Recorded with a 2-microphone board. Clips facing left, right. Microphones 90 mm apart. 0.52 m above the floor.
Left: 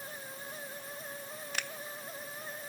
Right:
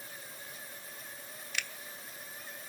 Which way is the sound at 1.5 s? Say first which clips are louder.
Left 1 dB; 45° left (ahead or behind).